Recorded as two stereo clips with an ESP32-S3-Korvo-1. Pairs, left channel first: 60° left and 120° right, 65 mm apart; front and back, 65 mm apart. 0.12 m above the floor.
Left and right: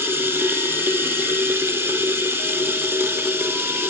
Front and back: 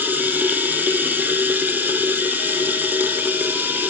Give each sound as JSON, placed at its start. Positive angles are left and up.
{"t": 0.0, "sound": "running water", "azimuth_deg": -140, "distance_m": 1.0}